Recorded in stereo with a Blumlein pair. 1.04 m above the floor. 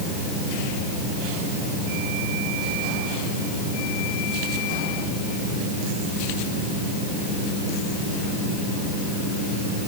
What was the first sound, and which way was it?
Only background noise.